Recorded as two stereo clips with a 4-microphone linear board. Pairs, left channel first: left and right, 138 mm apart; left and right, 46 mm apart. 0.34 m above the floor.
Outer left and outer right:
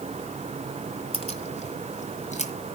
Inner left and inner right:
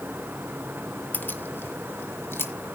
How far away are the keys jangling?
About 1.4 m.